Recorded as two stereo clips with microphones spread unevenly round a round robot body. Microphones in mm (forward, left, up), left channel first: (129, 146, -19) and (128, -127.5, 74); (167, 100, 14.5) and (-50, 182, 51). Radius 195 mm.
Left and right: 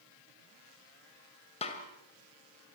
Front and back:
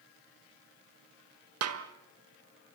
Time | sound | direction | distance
1.6 | a snare drum | 155° left | 1.8 m